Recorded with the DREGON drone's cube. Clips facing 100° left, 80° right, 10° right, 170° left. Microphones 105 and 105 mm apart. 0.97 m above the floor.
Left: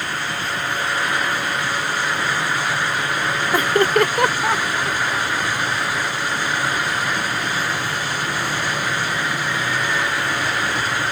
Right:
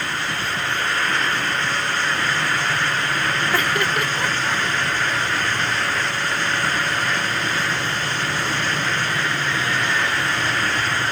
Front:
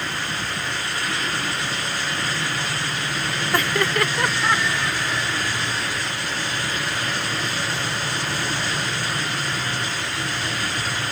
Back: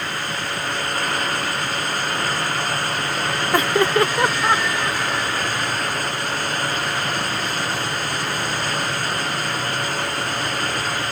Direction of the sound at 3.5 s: 145° left.